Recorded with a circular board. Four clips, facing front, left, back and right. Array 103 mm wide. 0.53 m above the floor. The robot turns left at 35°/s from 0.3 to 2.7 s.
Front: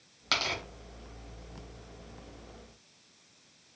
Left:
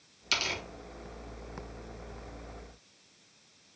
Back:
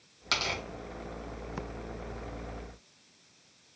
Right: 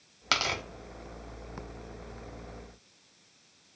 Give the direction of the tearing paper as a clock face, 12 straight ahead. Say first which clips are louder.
Right 5 dB, even; 3 o'clock.